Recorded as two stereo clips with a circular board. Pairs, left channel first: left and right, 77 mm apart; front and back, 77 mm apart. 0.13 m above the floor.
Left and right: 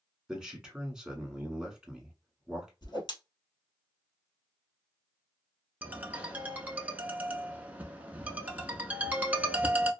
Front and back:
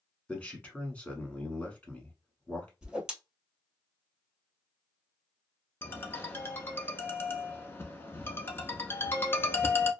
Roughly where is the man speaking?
Ahead right.